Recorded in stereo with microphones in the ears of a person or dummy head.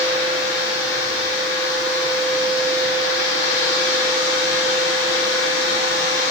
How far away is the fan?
About 1.8 m.